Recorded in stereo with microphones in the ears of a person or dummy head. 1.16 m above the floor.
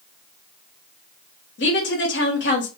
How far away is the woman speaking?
About 1.1 m.